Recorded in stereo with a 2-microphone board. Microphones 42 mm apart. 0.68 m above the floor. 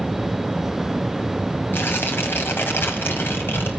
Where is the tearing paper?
65° left (ahead or behind), 3 m.